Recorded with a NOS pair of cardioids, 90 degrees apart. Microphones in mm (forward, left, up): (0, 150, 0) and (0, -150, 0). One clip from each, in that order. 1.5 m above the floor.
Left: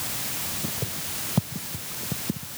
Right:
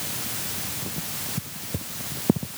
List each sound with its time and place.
Only background noise.